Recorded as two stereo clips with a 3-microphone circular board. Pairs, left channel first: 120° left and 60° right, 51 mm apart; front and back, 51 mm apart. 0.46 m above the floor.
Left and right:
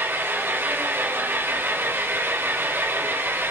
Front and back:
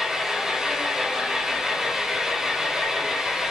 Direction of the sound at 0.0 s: 100° right.